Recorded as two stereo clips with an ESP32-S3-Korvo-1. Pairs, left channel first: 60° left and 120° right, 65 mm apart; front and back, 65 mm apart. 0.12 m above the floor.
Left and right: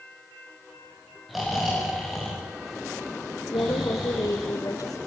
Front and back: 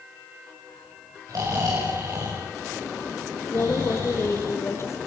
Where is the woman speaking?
45° left, 3 m.